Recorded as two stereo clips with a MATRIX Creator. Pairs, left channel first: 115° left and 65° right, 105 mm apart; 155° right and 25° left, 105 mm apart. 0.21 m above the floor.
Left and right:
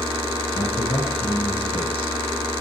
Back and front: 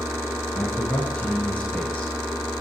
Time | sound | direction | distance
0.6 | a man speaking | 125° left | 2.5 m